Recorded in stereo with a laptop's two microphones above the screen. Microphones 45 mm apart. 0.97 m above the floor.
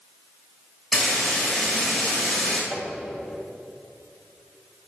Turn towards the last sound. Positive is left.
turn(degrees=-35)  # may be behind; listen again after turning